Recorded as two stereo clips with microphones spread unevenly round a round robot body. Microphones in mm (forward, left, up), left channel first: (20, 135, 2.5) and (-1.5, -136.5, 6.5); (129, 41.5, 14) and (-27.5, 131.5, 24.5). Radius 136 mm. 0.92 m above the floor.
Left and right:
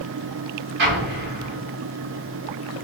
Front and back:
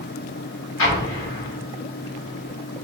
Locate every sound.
0.8 s an explosion: 45° right, 1.3 m